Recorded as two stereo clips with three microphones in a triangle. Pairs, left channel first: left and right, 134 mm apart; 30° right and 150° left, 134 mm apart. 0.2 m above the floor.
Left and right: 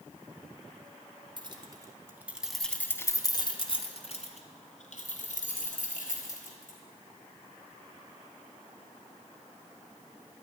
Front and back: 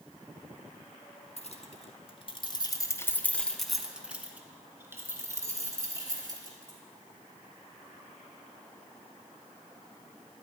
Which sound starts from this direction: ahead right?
Keys jangling, at 1.4 s.